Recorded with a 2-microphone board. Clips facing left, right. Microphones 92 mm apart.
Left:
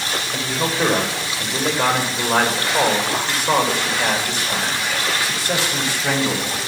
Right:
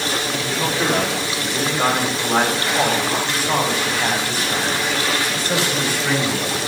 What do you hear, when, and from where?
0.3 s a man speaking: 35° left (ahead or behind), 4 m; by 6.6 s 80° left, 4.5 m